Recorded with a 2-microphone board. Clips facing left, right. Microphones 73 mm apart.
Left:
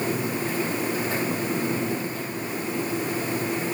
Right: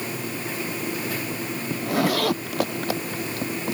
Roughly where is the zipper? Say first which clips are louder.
Right 4 dB; right.